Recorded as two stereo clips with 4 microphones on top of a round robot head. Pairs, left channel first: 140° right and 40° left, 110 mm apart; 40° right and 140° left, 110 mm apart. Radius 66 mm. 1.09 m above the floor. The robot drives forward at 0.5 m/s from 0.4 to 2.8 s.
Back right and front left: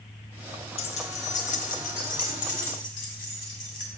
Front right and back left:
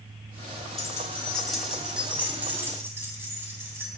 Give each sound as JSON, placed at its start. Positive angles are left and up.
{"t": 0.8, "sound": "keys jangling", "azimuth_deg": -105, "distance_m": 0.7}